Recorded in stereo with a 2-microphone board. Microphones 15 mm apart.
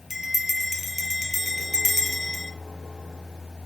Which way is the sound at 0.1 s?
20° right (ahead or behind).